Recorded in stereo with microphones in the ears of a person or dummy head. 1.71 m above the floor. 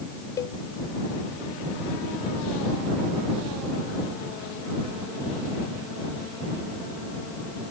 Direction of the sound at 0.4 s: 20° left (ahead or behind).